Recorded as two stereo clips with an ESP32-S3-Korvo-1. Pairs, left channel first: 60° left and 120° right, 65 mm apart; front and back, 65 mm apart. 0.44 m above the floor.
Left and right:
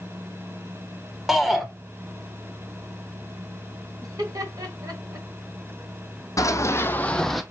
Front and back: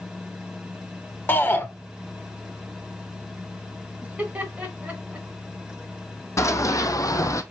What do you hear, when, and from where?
1.3 s a shout: 35° right, 1.4 m
4.0 s laughter: 115° right, 3 m
6.4 s running footsteps: 35° left, 1.2 m; by 7.4 s 30° right, 0.9 m